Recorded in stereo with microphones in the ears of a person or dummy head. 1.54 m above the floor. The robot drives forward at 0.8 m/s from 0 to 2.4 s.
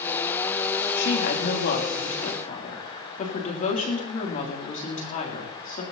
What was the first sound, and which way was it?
A woman speaking, 60° left (ahead or behind).